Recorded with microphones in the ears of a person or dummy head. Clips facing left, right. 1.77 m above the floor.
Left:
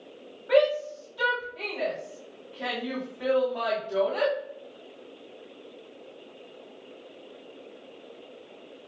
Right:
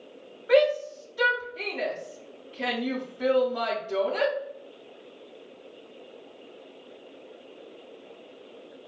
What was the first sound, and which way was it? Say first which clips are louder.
A shout: right 1 dB; 30° right (ahead or behind).